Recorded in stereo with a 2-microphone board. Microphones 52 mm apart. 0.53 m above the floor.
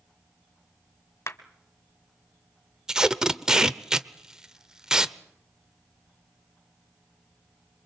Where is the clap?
55° left (ahead or behind), 1.7 m.